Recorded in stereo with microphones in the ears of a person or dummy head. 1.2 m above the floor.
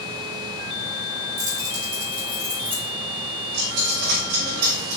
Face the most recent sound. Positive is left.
turn(degrees=-60)  # may be behind; listen again after turning